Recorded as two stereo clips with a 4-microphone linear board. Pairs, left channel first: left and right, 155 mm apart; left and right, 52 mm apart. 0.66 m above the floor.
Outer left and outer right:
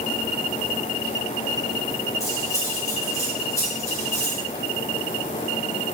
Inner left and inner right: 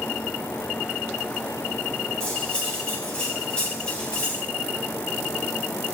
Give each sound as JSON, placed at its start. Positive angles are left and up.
{"t": 2.2, "sound": "cutlery clinking", "side_deg": 20, "distance_m": 3.0}